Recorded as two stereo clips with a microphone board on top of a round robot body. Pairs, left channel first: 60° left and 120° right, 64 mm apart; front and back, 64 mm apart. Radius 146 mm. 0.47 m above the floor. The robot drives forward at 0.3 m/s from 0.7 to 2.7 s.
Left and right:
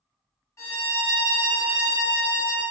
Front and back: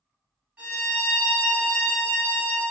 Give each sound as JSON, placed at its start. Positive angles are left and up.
{"t": 0.6, "sound": "a violin", "azimuth_deg": 105, "distance_m": 0.9}